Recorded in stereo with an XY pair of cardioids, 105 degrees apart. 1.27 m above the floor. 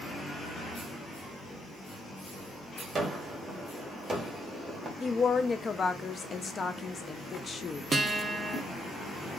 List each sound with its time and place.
3.0 s a gunshot: 30° right, 1.5 m
5.0 s a woman speaking: 40° left, 0.6 m
7.9 s a guitar: 30° right, 0.8 m